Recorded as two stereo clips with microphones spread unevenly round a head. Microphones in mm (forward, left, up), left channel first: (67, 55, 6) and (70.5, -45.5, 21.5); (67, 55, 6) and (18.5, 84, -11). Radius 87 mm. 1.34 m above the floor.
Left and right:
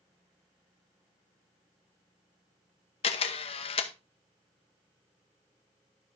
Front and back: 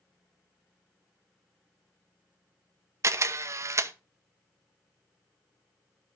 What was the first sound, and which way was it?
A camera shutter, 125° left.